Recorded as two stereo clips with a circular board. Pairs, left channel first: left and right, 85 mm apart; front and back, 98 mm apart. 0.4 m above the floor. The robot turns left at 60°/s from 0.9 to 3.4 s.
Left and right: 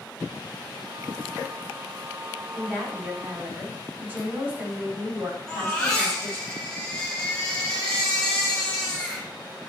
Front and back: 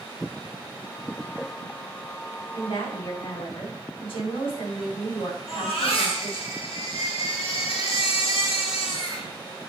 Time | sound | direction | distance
2.5 | a woman speaking | 30° left | 3.5 m
5.5 | a baby crying | 10° left | 2.5 m